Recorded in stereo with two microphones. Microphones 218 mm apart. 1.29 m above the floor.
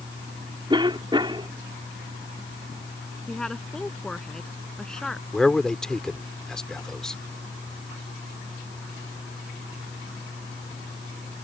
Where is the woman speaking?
5° left (ahead or behind).